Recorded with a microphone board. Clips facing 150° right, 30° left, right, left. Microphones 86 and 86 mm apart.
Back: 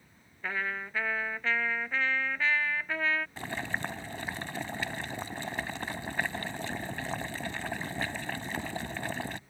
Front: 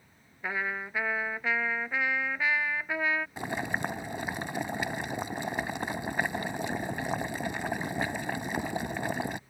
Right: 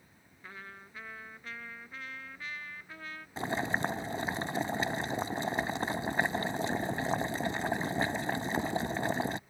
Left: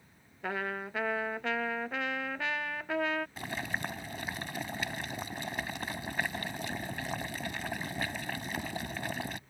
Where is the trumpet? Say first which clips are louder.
Front 1 dB, left 14 dB; 110° left.